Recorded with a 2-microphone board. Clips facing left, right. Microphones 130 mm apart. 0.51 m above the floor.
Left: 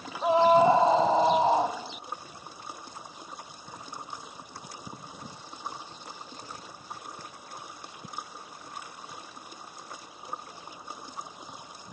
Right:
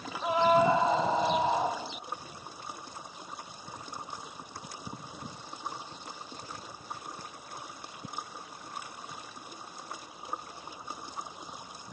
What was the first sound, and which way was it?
A scream, 30° left (ahead or behind).